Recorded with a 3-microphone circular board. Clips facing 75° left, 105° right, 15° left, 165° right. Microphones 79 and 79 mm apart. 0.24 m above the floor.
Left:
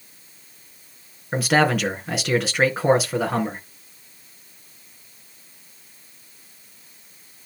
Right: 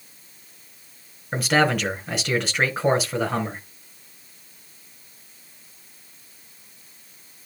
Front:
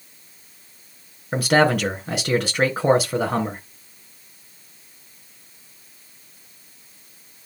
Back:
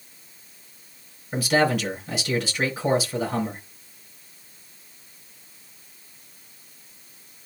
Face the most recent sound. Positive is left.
turn(degrees=-15)